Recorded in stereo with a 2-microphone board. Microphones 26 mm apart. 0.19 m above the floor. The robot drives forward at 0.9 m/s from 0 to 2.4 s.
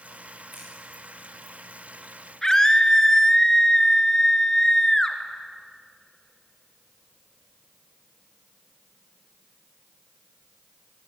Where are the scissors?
15° right (ahead or behind), 8.5 m.